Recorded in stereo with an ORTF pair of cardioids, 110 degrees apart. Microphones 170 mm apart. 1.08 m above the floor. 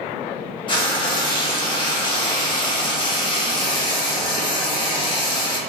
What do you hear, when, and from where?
0.7 s frying: 30° left, 1.0 m